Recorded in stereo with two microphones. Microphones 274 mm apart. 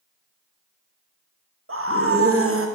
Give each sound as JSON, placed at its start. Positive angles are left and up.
{"t": 1.7, "sound": "a scream", "side_deg": -55, "distance_m": 1.0}